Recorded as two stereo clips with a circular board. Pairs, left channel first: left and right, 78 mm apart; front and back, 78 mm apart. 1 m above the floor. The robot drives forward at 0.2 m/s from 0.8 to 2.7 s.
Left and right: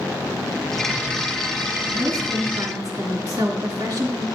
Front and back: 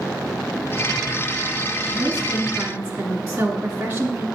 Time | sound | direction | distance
1.9 | a woman speaking | 130° right | 2.5 m